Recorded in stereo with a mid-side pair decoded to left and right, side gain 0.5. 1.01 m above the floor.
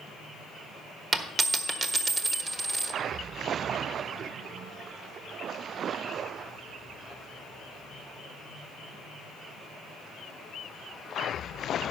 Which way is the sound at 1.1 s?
45° right.